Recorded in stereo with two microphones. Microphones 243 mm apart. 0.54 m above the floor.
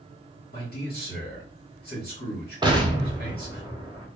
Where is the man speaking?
40° left (ahead or behind), 1.7 m.